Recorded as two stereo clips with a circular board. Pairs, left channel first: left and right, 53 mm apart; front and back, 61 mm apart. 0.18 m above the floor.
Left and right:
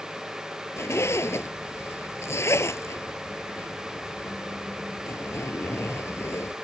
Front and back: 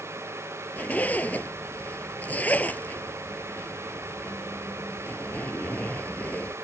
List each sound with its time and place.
0.8 s a zipper: 60° left